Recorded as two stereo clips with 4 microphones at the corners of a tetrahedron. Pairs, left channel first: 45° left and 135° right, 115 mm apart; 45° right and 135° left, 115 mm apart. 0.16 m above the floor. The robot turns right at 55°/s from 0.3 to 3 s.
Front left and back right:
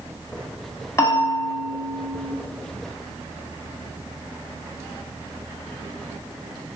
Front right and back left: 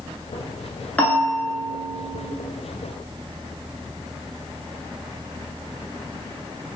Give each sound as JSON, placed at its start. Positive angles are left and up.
{"t": 1.0, "sound": "a bell", "azimuth_deg": 20, "distance_m": 0.6}